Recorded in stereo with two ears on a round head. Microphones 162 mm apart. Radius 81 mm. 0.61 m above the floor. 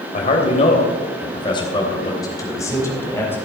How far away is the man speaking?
About 3 m.